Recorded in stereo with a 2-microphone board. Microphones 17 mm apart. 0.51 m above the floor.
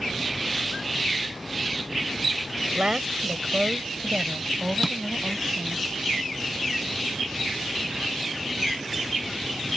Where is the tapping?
10° right (ahead or behind).